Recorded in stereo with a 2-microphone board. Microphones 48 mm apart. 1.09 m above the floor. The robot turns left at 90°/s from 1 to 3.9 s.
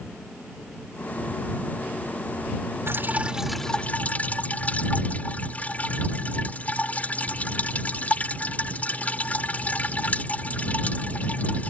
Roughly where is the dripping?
Behind right.